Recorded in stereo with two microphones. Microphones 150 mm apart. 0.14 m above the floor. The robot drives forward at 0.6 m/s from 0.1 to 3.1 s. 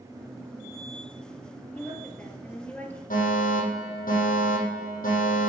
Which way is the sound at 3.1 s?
65° left (ahead or behind).